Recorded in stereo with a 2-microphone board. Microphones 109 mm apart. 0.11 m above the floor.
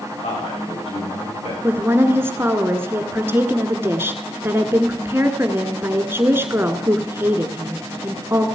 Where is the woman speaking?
20° right (ahead or behind), 1.3 m.